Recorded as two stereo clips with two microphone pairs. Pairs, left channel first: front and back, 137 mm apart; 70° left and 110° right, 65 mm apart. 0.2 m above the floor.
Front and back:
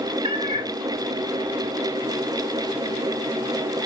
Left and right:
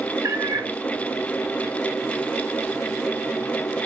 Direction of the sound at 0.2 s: 130° right.